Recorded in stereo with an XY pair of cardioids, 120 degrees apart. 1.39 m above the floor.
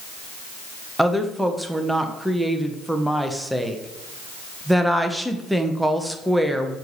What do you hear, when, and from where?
1.0 s a woman speaking: 5° right, 0.9 m